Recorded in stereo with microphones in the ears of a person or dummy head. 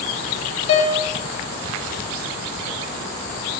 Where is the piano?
35° left (ahead or behind), 0.5 m.